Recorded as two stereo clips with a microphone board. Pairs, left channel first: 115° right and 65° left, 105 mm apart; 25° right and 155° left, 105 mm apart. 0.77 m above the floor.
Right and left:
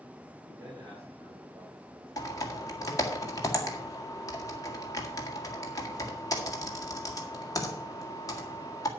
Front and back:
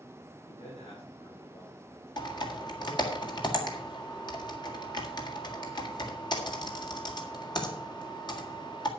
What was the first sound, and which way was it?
A man speaking, 5° left.